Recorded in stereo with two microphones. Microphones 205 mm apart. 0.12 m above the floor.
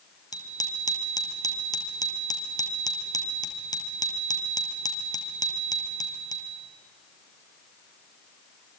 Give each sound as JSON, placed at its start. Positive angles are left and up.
{"t": 0.3, "sound": "a bicycle bell", "side_deg": 20, "distance_m": 2.0}